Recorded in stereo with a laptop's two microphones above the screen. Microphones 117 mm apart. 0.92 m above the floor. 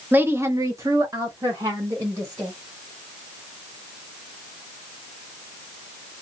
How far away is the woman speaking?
About 0.5 m.